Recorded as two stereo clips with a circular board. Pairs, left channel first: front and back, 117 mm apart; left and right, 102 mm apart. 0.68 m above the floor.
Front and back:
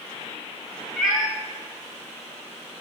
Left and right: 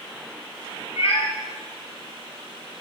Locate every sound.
1.0 s a cat meowing: 95° left, 0.6 m